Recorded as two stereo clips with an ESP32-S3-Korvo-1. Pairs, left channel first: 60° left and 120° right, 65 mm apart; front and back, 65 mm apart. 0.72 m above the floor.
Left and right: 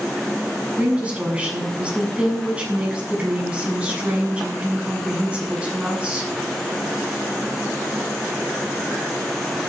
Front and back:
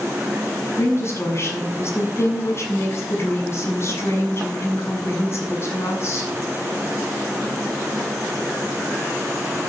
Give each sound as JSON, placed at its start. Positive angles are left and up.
{"t": 0.8, "sound": "a woman speaking", "azimuth_deg": -50, "distance_m": 7.0}